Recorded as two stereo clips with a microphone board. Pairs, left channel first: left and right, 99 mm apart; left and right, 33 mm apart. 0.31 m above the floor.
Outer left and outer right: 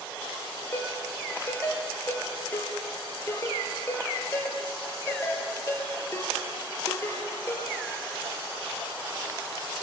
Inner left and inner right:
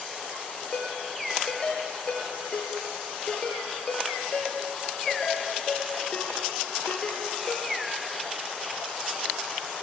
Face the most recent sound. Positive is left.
turn(degrees=25)  # may be behind; listen again after turning